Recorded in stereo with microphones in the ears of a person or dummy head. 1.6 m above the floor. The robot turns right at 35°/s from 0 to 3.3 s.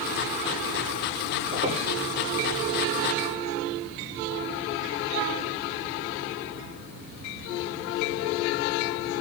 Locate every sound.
1.5 s a squeak: 40° right (ahead or behind), 7.5 m; by 1.8 s 30° right (ahead or behind), 7.5 m